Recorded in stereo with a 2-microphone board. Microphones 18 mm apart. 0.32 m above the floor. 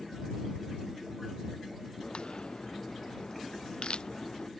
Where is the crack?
55° left (ahead or behind).